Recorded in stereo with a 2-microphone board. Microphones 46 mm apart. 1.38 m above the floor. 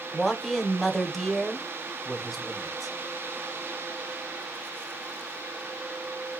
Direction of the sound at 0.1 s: 5° left (ahead or behind).